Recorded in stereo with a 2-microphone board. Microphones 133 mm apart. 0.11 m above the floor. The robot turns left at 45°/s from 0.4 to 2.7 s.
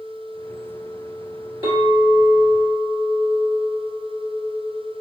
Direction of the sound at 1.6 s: 40° right.